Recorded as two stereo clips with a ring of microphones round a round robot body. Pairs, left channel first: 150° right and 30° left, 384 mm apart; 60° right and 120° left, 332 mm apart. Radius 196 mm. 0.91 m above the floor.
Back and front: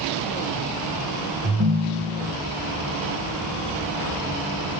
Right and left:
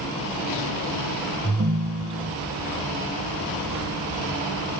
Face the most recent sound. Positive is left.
turn(degrees=75)